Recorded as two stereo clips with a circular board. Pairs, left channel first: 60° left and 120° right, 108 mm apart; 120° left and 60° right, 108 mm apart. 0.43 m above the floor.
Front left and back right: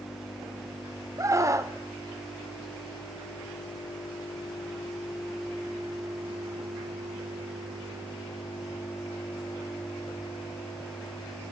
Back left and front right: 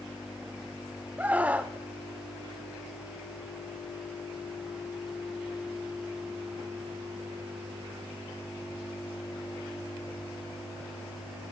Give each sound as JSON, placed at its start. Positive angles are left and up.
{"t": 1.2, "sound": "a scream", "azimuth_deg": -120, "distance_m": 0.9}